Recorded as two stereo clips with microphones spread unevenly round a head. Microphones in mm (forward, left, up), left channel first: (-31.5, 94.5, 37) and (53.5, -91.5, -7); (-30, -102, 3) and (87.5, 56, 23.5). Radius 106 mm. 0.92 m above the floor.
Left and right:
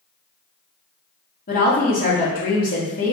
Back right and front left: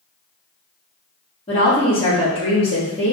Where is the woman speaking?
170° left, 1.7 m.